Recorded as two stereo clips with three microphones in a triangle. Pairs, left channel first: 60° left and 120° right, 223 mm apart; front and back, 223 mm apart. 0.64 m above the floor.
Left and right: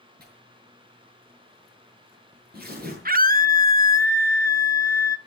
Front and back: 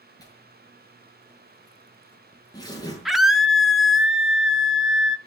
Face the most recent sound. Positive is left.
turn(degrees=-90)